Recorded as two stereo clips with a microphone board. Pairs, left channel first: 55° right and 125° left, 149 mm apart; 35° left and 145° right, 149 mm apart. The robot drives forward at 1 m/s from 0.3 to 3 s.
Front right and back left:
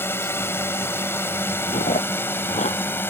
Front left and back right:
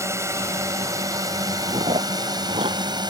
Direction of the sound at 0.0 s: 105° right.